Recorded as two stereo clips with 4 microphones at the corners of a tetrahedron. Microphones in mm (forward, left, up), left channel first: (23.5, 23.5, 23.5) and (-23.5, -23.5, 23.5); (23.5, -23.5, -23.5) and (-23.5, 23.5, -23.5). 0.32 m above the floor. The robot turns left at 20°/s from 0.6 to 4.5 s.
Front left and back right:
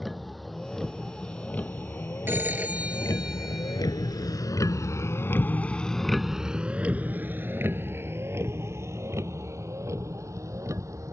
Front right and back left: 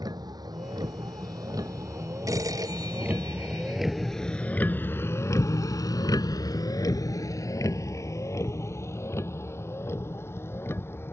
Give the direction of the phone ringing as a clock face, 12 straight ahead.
6 o'clock.